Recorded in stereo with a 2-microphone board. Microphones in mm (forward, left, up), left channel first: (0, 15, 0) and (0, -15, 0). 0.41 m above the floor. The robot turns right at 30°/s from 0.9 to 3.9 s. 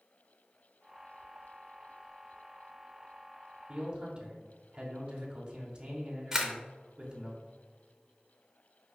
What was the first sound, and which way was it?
A man speaking, 30° right (ahead or behind).